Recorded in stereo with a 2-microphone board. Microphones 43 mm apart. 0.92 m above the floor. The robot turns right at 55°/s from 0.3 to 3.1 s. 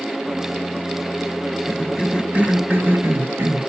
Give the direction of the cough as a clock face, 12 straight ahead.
6 o'clock.